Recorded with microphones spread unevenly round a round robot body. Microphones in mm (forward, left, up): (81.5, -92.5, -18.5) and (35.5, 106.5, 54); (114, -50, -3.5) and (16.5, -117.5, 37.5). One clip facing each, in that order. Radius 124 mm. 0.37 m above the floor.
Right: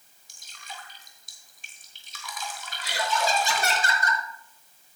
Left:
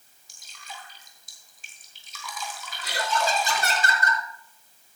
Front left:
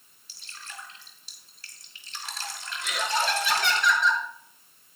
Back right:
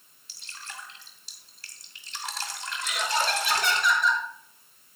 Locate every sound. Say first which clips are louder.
0.3 s dripping: even, back right 1 dB; 155° right, 3 m
2.8 s laughter: even, front left 1 dB; 65° left, 4.5 m